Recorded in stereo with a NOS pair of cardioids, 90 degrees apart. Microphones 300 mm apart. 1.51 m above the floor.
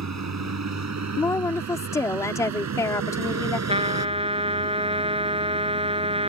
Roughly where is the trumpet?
Ahead.